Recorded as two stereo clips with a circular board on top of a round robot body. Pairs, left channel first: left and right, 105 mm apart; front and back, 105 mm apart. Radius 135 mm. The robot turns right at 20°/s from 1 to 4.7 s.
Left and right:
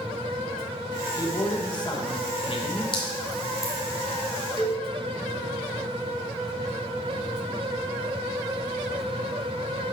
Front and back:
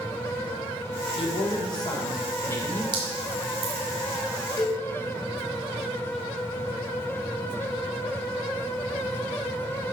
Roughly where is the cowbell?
Ahead left.